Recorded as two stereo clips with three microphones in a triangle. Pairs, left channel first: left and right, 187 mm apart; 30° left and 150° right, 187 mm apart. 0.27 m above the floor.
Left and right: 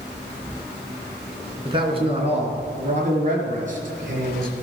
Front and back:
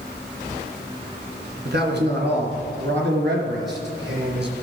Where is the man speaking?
155° right, 2.5 m; by 4.5 s 125° right, 4.5 m.